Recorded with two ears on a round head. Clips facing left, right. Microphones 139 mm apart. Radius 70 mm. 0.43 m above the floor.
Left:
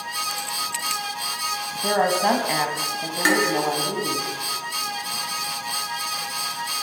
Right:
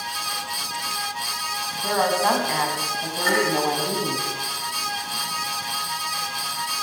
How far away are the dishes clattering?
About 5.5 m.